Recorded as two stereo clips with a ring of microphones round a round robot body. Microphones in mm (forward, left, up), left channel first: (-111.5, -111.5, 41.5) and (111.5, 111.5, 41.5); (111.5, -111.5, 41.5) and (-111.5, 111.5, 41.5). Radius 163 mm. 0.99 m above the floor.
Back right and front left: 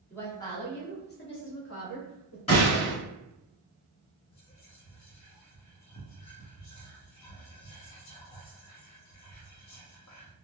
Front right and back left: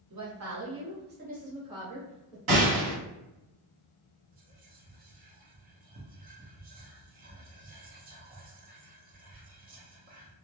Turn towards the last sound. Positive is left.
turn(degrees=-165)